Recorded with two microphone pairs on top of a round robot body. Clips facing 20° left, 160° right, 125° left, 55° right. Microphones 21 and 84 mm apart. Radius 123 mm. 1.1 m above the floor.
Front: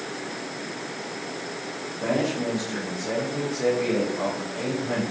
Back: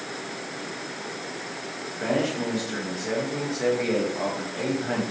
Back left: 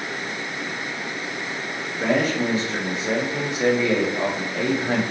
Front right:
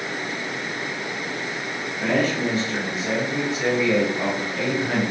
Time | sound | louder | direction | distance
2.0 | a man speaking | even, back left 1 dB | 175° right | 1.6 m